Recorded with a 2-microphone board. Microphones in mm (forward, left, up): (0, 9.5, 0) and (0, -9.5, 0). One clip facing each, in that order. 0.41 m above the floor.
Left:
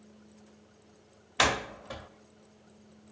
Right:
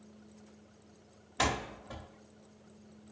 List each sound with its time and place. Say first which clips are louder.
1.4 s a door slam: left 5 dB; 45° left (ahead or behind), 0.9 m